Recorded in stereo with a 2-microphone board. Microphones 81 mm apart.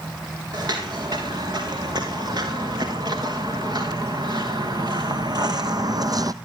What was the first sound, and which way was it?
Footsteps, 55° right (ahead or behind).